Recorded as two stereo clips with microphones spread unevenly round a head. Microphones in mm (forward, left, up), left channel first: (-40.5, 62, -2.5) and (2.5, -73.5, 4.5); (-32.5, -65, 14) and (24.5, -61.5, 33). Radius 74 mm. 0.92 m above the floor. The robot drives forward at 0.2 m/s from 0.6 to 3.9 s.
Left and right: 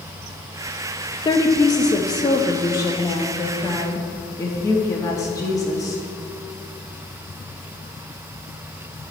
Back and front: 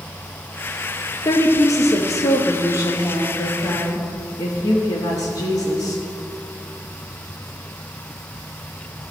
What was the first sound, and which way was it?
A woman speaking, 170° left.